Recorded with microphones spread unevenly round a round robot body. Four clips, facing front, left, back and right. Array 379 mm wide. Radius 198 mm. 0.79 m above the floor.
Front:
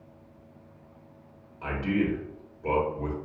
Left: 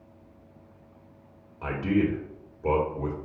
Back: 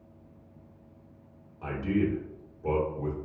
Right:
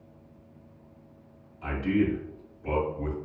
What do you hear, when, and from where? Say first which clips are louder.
1.6 s a man speaking: left 1 dB, front 1 dB; 70° left, 1.4 m